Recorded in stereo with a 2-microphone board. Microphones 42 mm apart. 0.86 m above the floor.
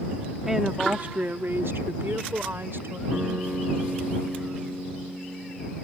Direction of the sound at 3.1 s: 35° right (ahead or behind).